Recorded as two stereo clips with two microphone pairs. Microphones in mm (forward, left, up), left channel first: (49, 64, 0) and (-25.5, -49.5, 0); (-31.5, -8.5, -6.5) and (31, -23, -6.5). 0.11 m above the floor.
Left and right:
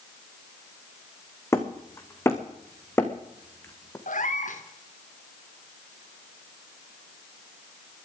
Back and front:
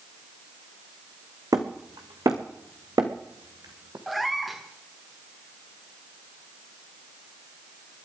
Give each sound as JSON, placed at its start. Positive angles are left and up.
{"t": 1.5, "sound": "hammering", "azimuth_deg": -15, "distance_m": 2.0}
{"t": 4.1, "sound": "a cat meowing", "azimuth_deg": 75, "distance_m": 1.9}